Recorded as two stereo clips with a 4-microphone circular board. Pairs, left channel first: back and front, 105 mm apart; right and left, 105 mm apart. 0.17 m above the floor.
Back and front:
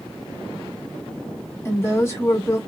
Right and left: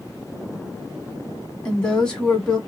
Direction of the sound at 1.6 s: 160° right.